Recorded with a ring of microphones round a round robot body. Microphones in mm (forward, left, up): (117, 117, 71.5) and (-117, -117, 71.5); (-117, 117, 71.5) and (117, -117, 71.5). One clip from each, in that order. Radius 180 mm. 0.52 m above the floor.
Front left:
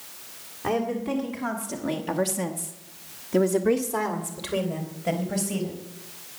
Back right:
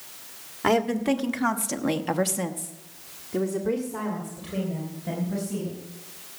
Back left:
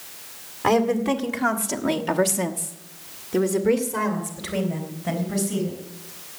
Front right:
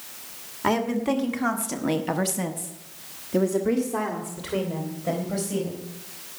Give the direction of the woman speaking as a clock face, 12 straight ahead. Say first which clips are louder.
Back right 4 dB, back left 4 dB; 5 o'clock.